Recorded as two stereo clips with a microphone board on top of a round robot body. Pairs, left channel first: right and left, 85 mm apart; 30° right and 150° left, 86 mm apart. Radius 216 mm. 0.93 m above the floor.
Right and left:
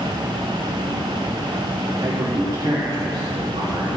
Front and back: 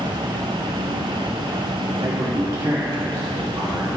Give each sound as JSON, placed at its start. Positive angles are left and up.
{"t": 2.0, "sound": "a man speaking", "azimuth_deg": 125, "distance_m": 2.0}